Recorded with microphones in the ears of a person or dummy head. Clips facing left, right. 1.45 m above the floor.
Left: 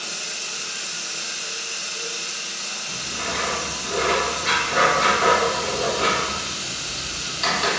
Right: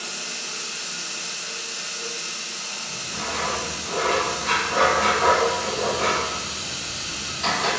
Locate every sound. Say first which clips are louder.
0.0 s running water: even; centre (ahead or behind), 1.4 m
2.9 s writing: left 1 dB; 40° left (ahead or behind), 1.4 m